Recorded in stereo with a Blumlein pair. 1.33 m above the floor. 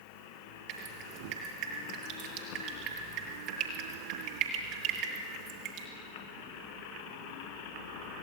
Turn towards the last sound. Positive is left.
turn(degrees=-40)